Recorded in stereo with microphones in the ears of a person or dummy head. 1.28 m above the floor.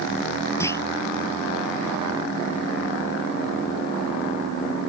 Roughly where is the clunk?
Centre.